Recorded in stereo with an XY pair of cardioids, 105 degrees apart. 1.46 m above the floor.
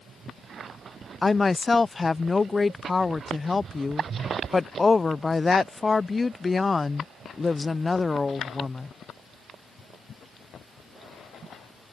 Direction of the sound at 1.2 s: 20° left.